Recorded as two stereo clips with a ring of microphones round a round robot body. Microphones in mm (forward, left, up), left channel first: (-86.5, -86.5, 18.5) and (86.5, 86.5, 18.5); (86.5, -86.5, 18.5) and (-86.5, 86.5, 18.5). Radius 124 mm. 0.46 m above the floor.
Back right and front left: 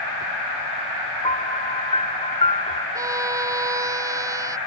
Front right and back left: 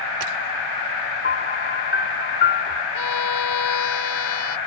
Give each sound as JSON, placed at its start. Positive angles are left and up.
{"t": 1.2, "sound": "a piano", "azimuth_deg": -75}
{"t": 3.0, "sound": "a violin", "azimuth_deg": -35}